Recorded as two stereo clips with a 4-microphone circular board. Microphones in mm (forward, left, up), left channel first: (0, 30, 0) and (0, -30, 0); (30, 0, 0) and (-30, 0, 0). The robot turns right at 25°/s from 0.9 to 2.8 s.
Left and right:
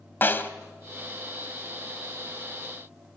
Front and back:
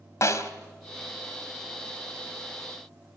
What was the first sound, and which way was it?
A snare drum, 35° left.